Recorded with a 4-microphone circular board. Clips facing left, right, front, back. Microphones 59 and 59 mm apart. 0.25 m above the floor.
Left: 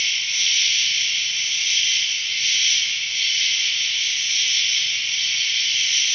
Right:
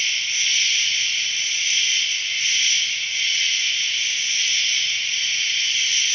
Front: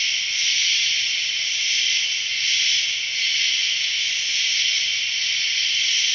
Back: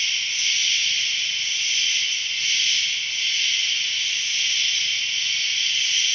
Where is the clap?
I don't hear a clap.